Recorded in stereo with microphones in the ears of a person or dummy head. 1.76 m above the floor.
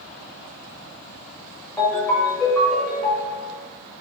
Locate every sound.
1.8 s a ringtone: centre (ahead or behind), 1.2 m